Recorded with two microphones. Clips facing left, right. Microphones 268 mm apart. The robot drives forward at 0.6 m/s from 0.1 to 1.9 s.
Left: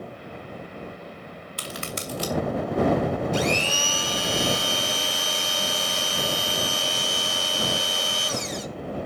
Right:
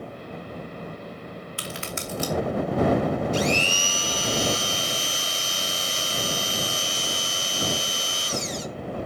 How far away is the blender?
About 1.1 m.